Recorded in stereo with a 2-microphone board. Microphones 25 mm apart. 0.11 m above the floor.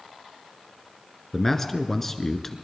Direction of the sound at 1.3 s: 15° left (ahead or behind).